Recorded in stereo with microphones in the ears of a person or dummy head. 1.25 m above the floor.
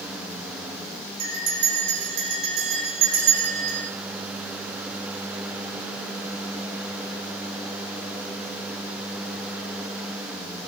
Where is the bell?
55° right (ahead or behind), 6 m.